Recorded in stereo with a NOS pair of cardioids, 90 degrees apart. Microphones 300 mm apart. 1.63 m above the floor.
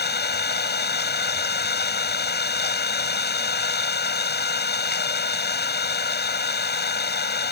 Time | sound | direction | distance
0.0 | an engine running | 35° left | ?